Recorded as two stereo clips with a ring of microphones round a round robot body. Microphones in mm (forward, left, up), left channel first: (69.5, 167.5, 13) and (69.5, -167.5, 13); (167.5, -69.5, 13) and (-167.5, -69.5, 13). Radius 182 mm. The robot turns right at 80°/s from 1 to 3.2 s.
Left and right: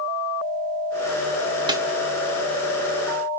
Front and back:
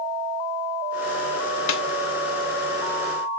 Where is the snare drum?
15° right, 0.6 m; by 1.8 s 5° right, 0.6 m.